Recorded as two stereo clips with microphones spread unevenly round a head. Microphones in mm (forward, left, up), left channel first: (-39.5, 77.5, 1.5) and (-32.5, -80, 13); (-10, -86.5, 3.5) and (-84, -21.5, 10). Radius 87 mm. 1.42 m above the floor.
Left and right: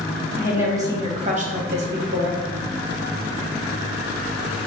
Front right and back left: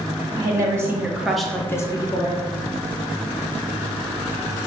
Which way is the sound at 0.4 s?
165° right.